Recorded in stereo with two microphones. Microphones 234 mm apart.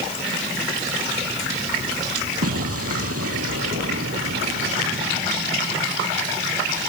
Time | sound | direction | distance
2.4 | an explosion | 85° right | ?